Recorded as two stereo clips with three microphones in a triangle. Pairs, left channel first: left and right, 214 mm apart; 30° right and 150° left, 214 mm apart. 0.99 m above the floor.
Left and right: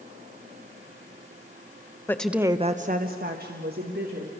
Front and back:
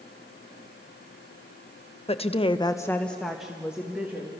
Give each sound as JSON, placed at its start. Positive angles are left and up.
{"t": 2.1, "sound": "a woman speaking", "azimuth_deg": 15, "distance_m": 1.0}